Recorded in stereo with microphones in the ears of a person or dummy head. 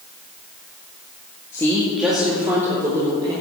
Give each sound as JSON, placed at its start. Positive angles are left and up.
{"t": 1.5, "sound": "a woman speaking", "side_deg": 20, "distance_m": 1.8}